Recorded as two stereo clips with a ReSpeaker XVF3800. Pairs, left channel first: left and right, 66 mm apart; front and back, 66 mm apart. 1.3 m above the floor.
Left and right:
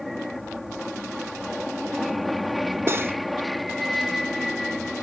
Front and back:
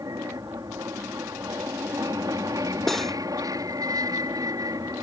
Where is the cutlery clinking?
85° right.